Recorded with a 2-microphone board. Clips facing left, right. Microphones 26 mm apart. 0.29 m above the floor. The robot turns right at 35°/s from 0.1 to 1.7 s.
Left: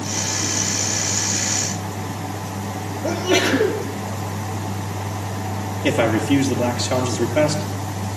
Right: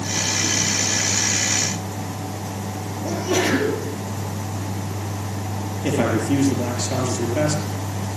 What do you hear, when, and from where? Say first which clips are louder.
3.0 s a sneeze: left 3 dB; 25° left (ahead or behind), 9.5 m
5.8 s a man speaking: left 3 dB; 25° left (ahead or behind), 5 m